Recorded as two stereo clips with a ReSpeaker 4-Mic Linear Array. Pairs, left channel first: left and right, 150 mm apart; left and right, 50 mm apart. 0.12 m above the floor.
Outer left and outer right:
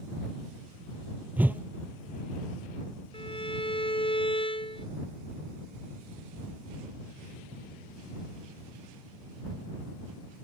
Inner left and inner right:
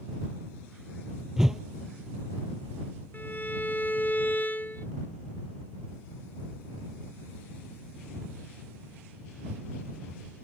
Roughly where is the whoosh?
Centre.